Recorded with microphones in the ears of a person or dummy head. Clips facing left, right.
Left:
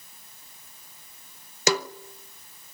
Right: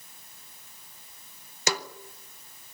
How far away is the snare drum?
About 0.8 m.